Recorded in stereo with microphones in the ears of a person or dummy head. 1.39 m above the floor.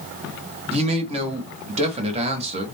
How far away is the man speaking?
About 1.0 m.